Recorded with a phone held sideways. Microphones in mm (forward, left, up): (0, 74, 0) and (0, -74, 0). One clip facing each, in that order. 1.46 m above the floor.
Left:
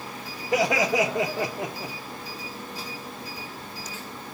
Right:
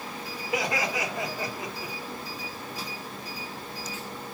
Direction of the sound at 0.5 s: 70° left (ahead or behind).